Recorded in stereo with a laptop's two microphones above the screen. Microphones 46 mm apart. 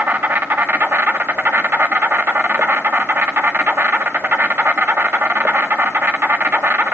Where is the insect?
50° right (ahead or behind), 1.9 m.